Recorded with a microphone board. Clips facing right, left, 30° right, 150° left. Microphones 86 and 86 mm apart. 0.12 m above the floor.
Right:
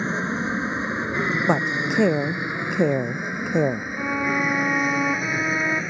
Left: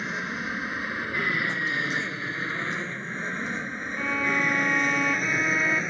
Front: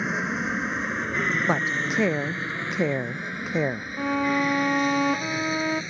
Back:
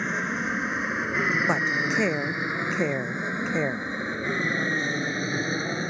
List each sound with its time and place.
0.0 s an aircraft: 110° right; by 5.9 s straight behind
1.5 s a woman speaking: 115° right
4.0 s a violin: 20° right